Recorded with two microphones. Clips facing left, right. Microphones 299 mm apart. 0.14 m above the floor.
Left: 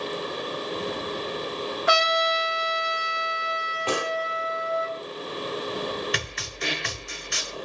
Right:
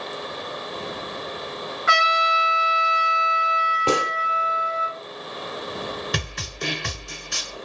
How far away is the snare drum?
About 0.8 m.